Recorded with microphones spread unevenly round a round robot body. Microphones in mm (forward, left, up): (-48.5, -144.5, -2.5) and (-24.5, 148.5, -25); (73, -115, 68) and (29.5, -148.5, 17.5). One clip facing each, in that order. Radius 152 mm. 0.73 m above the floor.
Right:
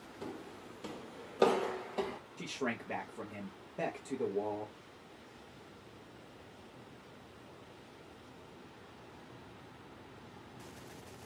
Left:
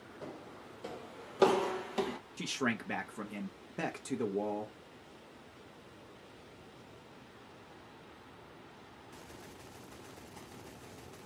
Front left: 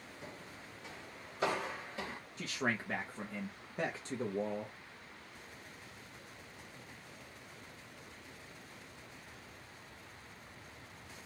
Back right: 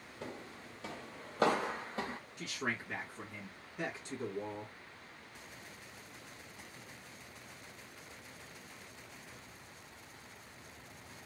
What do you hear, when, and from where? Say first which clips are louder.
0.2 s footsteps: right 3 dB, back right 6 dB; 130° right, 1.0 m; by 2.2 s 100° left, 0.8 m
2.4 s a man speaking: left 3 dB, front left 3 dB; 120° left, 0.7 m